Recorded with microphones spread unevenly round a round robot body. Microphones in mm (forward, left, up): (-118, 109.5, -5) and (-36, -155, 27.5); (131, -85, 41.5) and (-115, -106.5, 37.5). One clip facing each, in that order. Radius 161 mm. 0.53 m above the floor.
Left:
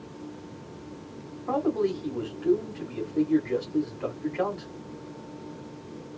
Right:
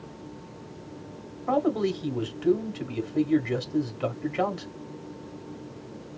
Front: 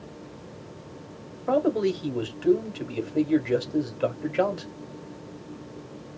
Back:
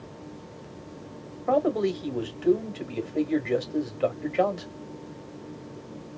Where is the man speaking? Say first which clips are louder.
Right 1 dB, front 1 dB; 70° right, 1.4 m.